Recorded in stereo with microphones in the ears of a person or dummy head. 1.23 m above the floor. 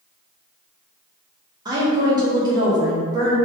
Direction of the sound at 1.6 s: 20° right (ahead or behind).